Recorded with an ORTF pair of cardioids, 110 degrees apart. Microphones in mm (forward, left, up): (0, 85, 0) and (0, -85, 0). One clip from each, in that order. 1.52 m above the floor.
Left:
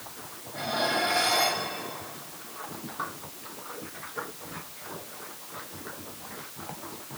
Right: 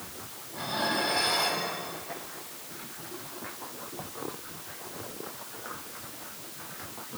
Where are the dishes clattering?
60° left, 6.5 m.